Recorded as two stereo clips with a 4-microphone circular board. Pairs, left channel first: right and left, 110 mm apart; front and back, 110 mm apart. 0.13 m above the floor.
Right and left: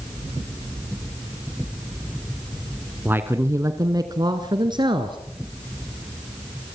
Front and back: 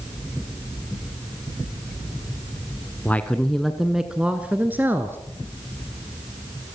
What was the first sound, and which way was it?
A man speaking, 45° left.